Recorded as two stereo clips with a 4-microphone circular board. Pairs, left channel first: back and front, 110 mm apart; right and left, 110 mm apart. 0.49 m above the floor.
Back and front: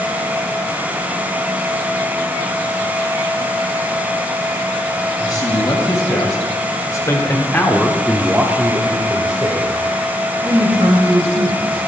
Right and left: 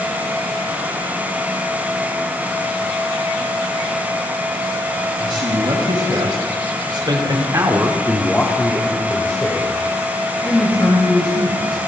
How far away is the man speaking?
About 4 m.